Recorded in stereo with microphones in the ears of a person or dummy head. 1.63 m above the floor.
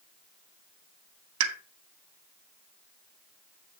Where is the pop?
80° right, 1.3 m.